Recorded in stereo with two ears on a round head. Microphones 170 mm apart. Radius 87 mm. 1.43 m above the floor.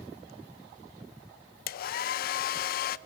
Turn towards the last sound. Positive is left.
turn(degrees=50)  # may be behind; listen again after turning